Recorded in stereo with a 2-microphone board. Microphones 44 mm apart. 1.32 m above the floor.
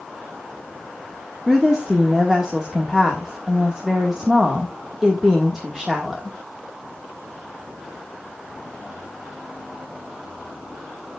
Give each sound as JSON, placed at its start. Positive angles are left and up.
{"t": 1.5, "sound": "a woman speaking", "side_deg": -10, "distance_m": 1.7}